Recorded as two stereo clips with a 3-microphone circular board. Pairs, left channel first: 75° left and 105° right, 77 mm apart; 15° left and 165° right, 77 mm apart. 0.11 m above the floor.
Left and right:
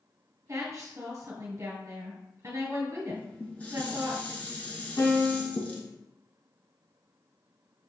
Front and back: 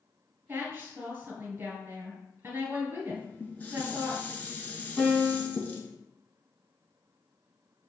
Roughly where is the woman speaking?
Behind right.